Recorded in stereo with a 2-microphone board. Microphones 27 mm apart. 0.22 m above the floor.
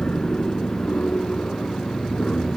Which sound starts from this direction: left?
An aircraft, at 0.0 s.